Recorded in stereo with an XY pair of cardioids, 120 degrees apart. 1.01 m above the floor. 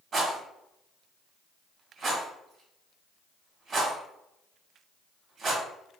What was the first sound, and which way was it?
A rattle, 45° right.